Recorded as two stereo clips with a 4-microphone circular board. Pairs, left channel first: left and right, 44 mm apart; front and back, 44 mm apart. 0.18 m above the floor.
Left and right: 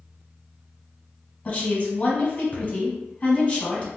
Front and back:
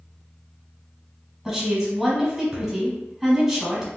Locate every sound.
1.4 s a woman speaking: 95° left, 1.2 m